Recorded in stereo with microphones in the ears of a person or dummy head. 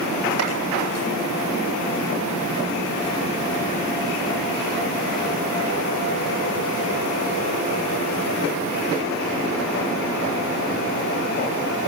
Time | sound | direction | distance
0.4 | chopping | 90° right | 9 m